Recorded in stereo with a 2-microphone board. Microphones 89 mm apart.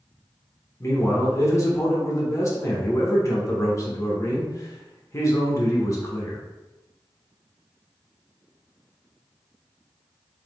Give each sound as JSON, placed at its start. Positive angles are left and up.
{"t": 0.8, "sound": "a man speaking", "side_deg": 35, "distance_m": 0.9}